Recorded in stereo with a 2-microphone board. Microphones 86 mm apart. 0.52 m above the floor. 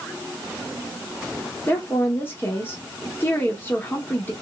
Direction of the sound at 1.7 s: 25° left (ahead or behind).